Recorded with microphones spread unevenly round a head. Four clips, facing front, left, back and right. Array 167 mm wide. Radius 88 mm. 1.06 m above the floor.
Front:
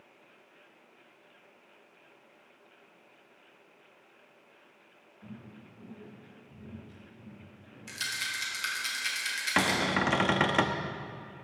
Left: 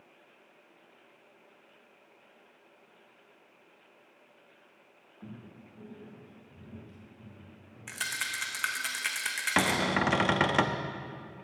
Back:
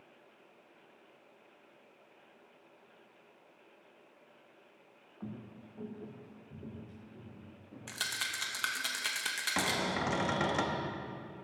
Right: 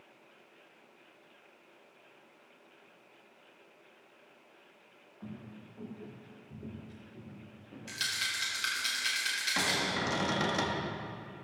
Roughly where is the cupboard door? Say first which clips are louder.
Left 7 dB, front 6 dB; ahead left.